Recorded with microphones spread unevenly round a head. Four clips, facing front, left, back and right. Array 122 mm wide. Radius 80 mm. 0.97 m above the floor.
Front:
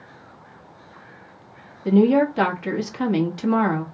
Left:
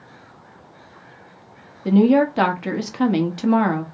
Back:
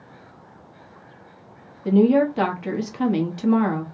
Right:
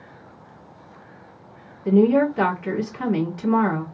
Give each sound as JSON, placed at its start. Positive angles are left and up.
{"t": 1.9, "sound": "a woman speaking", "azimuth_deg": 65, "distance_m": 1.5}